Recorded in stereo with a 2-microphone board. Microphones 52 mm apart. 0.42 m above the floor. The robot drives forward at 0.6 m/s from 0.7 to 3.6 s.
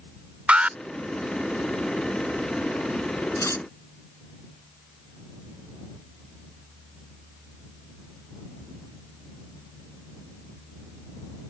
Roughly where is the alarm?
Right.